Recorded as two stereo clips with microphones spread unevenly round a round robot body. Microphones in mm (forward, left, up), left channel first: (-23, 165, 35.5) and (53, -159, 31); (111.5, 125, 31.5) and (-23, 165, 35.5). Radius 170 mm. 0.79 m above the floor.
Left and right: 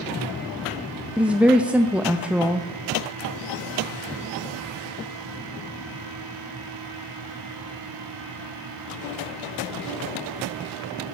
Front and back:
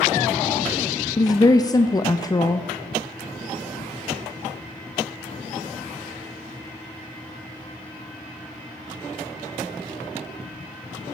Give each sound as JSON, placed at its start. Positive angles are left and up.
{"t": 1.2, "sound": "a woman speaking", "azimuth_deg": 5, "distance_m": 0.6}